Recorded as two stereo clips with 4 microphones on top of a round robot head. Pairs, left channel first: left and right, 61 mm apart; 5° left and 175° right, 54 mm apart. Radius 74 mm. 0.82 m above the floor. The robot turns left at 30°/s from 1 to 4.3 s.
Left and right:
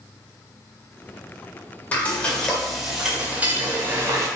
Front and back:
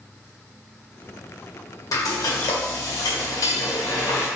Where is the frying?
25° left, 1.9 m; by 4.3 s 45° right, 1.9 m.